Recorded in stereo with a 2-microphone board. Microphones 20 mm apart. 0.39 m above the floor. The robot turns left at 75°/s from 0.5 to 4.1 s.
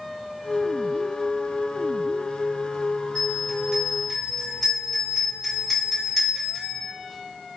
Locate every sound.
3.1 s a bell: 35° left (ahead or behind), 1.6 m; by 6.8 s 10° left (ahead or behind), 1.6 m